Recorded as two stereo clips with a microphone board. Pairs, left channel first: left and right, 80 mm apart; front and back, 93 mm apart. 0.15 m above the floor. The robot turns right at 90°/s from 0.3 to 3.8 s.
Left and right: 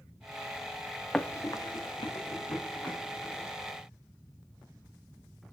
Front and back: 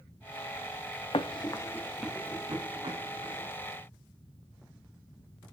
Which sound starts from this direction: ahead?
Running footsteps, at 1.1 s.